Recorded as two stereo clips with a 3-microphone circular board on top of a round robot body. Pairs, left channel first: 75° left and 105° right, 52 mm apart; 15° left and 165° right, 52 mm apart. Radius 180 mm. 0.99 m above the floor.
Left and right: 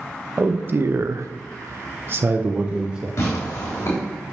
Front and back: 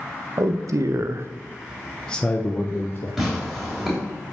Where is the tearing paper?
110° left, 3 m.